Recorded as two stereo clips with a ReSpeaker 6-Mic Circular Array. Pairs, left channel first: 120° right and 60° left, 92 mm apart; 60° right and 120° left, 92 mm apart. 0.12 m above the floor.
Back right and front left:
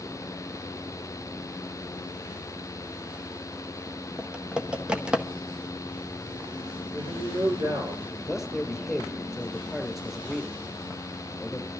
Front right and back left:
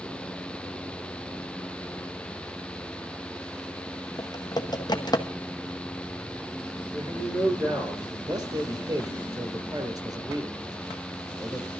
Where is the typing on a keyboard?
20° right, 1.0 m.